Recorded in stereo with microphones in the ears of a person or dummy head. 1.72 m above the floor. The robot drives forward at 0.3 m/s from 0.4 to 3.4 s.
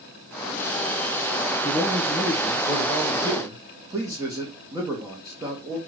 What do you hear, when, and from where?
1.6 s a man speaking: 20° right (ahead or behind), 1.7 m; by 5.8 s 15° right (ahead or behind), 2 m